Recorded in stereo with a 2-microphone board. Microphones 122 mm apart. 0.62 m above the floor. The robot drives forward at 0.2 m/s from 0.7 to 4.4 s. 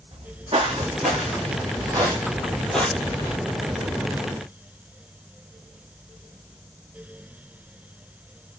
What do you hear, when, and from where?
0.1 s footsteps: 50° right (ahead or behind), 2.5 m; by 3.4 s 35° left (ahead or behind), 0.8 m